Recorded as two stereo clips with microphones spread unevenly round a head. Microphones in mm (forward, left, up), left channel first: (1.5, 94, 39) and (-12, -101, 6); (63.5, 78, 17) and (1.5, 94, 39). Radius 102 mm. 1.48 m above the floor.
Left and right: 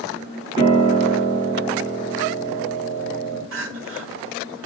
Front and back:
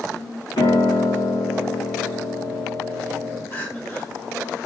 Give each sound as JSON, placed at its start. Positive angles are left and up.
{"t": 0.6, "sound": "a piano", "azimuth_deg": -20, "distance_m": 4.0}
{"t": 3.5, "sound": "crying", "azimuth_deg": -75, "distance_m": 1.7}